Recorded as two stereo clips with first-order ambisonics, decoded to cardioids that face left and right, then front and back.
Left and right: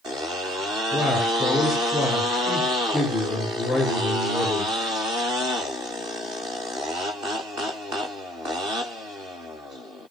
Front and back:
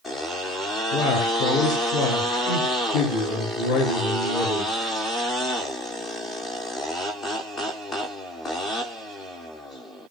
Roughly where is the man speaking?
Ahead.